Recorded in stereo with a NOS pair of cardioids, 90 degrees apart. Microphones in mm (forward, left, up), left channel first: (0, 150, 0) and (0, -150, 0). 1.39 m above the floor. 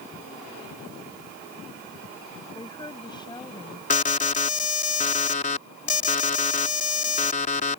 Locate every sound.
2.5 s a woman speaking: 15° left
3.9 s an alarm: 25° left